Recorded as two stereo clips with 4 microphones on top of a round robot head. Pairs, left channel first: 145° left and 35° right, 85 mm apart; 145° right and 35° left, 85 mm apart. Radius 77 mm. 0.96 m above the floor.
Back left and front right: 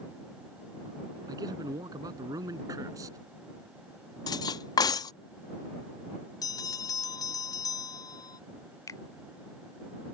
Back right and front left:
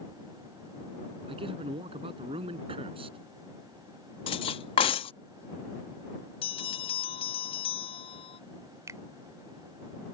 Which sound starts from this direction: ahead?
A man speaking, at 1.3 s.